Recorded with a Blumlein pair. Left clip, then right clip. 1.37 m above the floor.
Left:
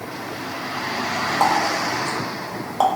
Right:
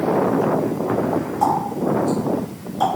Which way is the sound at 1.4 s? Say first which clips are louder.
Left 1 dB; 45° left.